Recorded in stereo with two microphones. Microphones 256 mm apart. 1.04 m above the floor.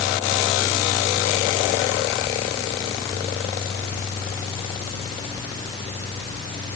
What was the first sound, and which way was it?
Only background noise.